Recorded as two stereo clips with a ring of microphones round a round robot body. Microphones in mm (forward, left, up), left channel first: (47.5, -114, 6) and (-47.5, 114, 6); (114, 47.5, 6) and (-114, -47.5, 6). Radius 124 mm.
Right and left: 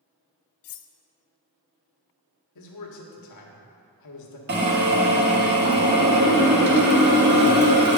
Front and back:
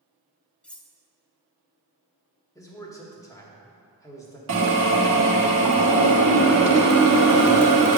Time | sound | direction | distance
0.6 | cutlery clinking | 65° right | 0.5 m
2.5 | a man speaking | 55° right | 1.5 m
4.5 | a drill | 160° left | 1.4 m